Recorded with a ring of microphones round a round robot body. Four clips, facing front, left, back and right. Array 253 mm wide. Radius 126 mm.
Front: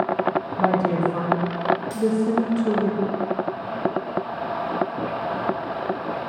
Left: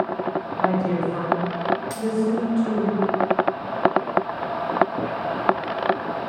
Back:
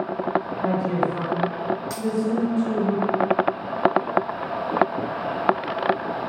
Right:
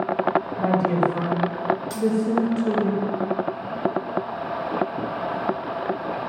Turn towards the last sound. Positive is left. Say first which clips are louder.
# right 1 dB, front 3 dB
turn(degrees=160)